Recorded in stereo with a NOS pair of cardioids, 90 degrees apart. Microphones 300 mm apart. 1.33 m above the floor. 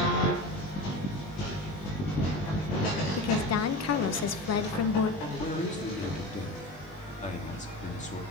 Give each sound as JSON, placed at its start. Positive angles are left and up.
{"t": 3.2, "sound": "a woman speaking", "azimuth_deg": 60, "distance_m": 1.1}
{"t": 5.2, "sound": "a man speaking", "azimuth_deg": 25, "distance_m": 2.5}